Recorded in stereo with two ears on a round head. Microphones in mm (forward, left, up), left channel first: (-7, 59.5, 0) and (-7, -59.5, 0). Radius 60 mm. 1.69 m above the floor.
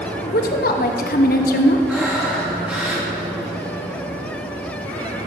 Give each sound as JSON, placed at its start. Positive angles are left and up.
{"t": 0.2, "sound": "a woman speaking", "side_deg": 70, "distance_m": 0.9}
{"t": 1.9, "sound": "breathing", "side_deg": -10, "distance_m": 2.5}